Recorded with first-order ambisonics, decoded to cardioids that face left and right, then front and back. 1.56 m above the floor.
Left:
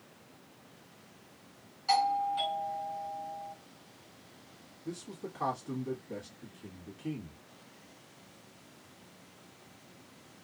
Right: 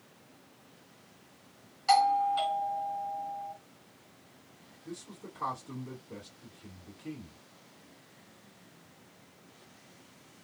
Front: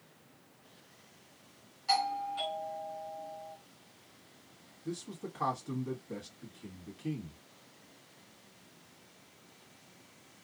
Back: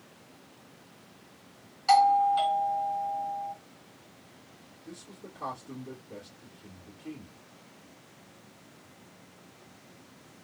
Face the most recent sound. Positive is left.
turn(degrees=35)